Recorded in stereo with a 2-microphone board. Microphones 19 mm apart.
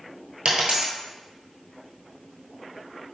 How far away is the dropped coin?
About 1.0 m.